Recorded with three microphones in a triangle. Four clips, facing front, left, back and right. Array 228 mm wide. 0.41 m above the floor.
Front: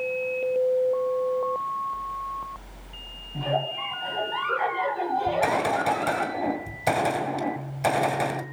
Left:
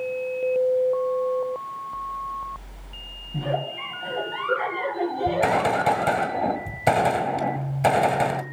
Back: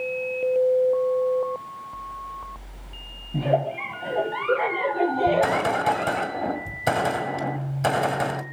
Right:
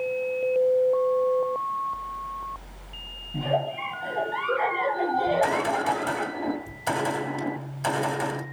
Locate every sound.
3.3 s a giggle: 175° right, 3.5 m
5.3 s a gunshot: 110° left, 2.0 m